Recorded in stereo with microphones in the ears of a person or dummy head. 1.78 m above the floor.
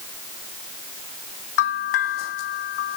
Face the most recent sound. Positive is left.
turn(degrees=75)  # may be behind; listen again after turning